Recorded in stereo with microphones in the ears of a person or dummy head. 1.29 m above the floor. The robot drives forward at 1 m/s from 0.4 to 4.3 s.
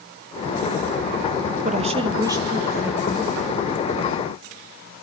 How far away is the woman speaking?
About 0.7 m.